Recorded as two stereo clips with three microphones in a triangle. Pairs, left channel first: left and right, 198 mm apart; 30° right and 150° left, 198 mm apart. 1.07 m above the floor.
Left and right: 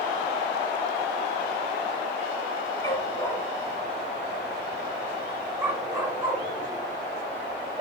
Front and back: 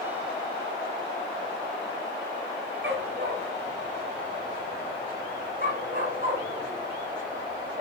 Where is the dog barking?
160° left, 2 m; by 7.8 s 160° right, 5.5 m.